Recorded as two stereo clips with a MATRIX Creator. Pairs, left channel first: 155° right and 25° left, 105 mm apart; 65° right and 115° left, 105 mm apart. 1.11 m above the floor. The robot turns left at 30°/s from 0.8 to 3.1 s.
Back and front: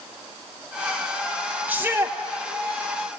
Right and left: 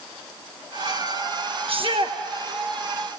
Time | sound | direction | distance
1.7 | a shout | 95° left | 1.3 m